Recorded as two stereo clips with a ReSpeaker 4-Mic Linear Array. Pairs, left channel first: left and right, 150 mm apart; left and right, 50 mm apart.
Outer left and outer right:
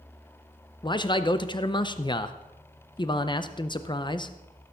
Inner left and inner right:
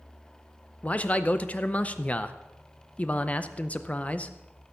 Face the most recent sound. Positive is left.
turn(degrees=30)  # may be behind; listen again after turning